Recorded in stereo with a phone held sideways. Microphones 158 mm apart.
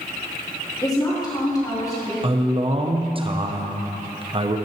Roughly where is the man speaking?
Right.